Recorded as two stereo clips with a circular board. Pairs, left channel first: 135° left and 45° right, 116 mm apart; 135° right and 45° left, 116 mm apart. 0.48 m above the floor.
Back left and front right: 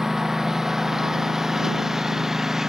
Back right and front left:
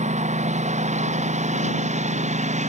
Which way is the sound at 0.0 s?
40° left.